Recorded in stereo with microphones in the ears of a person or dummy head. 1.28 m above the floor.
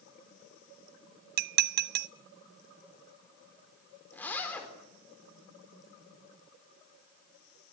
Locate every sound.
1.4 s dishes clattering: 55° right (ahead or behind), 0.5 m
4.1 s a zipper: 15° left (ahead or behind), 4.5 m